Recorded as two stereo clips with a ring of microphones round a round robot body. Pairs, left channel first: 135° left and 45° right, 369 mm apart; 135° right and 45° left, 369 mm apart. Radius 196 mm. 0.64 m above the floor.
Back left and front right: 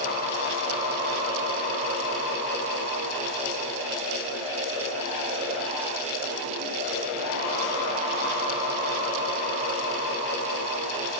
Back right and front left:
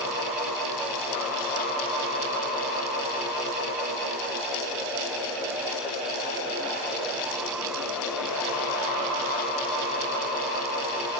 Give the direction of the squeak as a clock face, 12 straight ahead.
I don't hear a squeak.